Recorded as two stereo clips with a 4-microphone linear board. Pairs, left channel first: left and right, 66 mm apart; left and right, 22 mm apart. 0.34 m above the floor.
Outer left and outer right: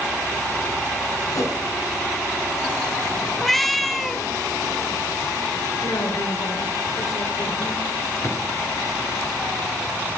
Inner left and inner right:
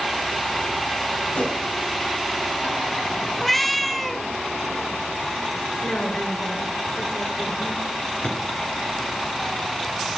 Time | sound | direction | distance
1.3 | a whoosh | 55° left (ahead or behind) | 3.5 m
3.4 | a cat meowing | centre (ahead or behind) | 0.8 m
5.8 | a woman speaking | 65° left (ahead or behind) | 5 m
8.2 | a drawer | 50° left (ahead or behind) | 3.5 m